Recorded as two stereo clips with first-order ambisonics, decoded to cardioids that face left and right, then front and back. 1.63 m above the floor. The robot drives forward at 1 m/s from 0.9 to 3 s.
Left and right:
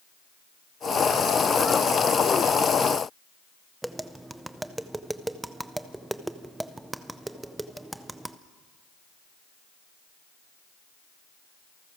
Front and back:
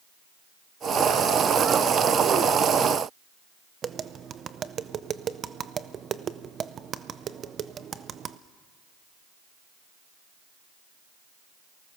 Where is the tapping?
170° right, 0.6 m.